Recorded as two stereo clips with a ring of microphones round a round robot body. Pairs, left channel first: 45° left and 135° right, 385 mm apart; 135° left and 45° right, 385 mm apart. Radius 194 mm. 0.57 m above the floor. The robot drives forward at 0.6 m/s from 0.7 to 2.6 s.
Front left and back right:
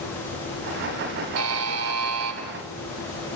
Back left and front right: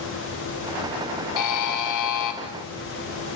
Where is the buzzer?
175° left, 2.5 m.